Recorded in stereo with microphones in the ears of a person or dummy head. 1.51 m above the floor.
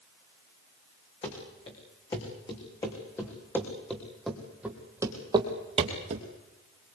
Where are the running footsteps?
30° left (ahead or behind), 6 m; by 6.3 s 40° right (ahead or behind), 2.5 m.